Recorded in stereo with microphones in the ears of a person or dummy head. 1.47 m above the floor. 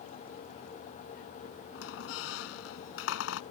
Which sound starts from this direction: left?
A squeak, at 1.8 s.